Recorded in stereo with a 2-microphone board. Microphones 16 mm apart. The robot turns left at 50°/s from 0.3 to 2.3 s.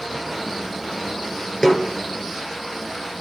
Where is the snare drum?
50° left (ahead or behind), 3 m; by 1.9 s 60° left (ahead or behind), 3 m.